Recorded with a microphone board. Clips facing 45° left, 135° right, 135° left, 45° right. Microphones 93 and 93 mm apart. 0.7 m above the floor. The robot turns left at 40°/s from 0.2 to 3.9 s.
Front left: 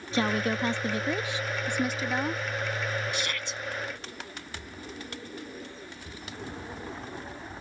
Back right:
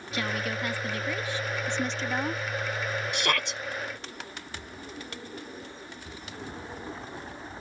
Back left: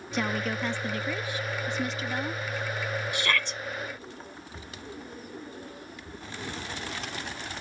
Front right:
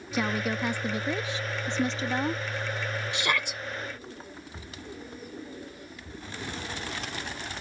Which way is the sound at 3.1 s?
110° right.